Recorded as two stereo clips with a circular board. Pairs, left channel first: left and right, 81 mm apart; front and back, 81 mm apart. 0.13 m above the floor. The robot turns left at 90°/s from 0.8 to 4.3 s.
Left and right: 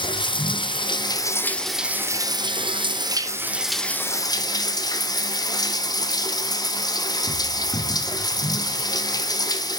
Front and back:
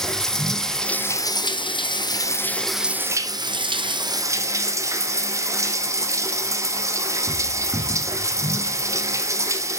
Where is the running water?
85° left, 1.1 m; by 9.8 s 130° left, 1.1 m.